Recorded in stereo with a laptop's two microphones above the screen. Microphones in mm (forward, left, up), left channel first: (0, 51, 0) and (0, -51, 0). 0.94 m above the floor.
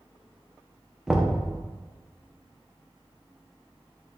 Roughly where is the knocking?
Centre.